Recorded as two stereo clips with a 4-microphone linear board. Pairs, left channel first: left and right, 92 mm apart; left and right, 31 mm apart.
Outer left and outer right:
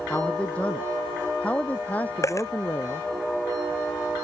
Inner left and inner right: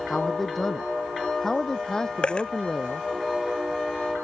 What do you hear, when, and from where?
0.1 s a man speaking: 10° left (ahead or behind); by 3.1 s 20° left (ahead or behind)
2.2 s a dropped coin: 35° left (ahead or behind)